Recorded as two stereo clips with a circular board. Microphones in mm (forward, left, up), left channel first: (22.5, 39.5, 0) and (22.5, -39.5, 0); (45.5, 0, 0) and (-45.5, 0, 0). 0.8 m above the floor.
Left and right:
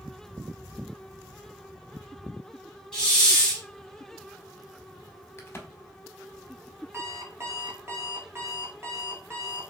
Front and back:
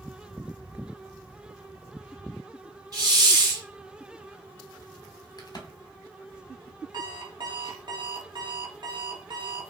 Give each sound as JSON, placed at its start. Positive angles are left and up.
{"t": 2.9, "sound": "a hiss", "azimuth_deg": 170, "distance_m": 1.4}
{"t": 5.4, "sound": "a crack", "azimuth_deg": 35, "distance_m": 0.6}
{"t": 6.9, "sound": "an alarm clock", "azimuth_deg": -145, "distance_m": 0.7}